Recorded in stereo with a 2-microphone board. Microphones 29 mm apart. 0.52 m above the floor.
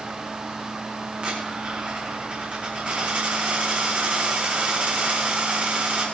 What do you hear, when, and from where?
1.2 s a dropped coin: 50° right (ahead or behind), 5 m